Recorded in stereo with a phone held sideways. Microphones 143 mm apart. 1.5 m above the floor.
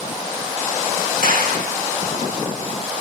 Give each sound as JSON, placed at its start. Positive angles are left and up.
{"t": 1.2, "sound": "a clap", "side_deg": -80, "distance_m": 3.5}